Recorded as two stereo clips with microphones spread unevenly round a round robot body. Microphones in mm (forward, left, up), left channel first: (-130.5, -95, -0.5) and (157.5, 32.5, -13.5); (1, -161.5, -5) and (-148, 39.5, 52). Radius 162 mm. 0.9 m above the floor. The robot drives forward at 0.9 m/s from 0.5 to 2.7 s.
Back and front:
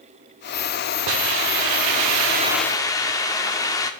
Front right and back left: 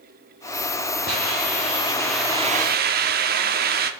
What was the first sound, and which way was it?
A hiss, 15° left.